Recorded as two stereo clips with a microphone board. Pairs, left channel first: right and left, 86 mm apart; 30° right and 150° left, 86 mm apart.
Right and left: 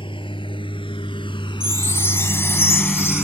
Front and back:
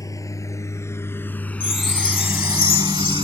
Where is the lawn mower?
80° right; by 3.2 s 170° left.